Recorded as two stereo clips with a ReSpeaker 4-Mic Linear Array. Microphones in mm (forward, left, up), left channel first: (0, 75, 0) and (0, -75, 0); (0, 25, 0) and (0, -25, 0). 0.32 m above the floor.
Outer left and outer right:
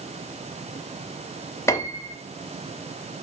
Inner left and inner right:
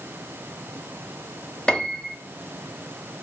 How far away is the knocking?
I don't hear knocking.